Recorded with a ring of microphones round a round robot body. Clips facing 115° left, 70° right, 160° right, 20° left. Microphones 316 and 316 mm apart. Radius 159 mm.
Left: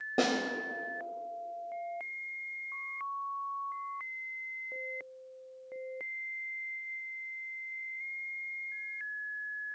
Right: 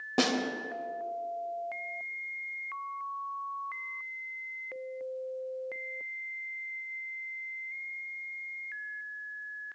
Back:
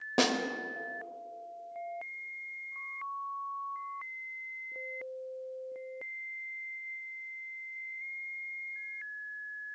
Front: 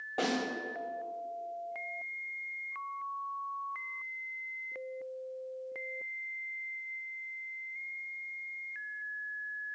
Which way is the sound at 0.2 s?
140° right.